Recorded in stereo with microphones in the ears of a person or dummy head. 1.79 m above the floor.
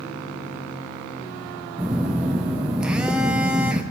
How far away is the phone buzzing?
About 0.7 m.